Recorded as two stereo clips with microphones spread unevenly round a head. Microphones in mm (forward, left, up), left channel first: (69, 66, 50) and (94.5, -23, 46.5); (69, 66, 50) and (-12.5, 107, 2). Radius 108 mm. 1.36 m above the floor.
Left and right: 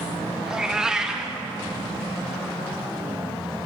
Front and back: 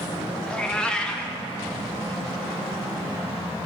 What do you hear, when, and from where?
0.5 s a cat meowing: 10° left, 0.8 m